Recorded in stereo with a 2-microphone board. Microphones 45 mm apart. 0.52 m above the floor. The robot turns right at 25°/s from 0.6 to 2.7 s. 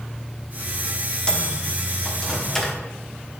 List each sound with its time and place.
1.3 s a microwave: 15° left (ahead or behind), 1.0 m; by 2.8 s 5° left (ahead or behind), 1.0 m